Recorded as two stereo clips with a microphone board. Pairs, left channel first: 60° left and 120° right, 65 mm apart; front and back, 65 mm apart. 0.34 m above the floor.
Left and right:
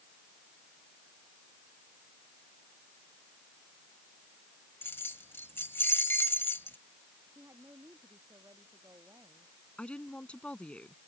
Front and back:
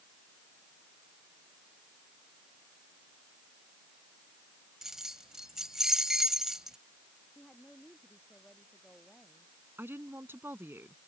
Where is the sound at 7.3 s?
85° right.